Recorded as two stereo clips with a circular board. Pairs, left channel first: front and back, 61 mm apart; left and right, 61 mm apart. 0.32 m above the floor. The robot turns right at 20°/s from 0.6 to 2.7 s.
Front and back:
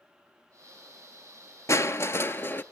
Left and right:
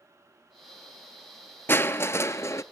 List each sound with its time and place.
1.7 s crushing: 35° left, 0.8 m; by 2.6 s 55° left, 0.8 m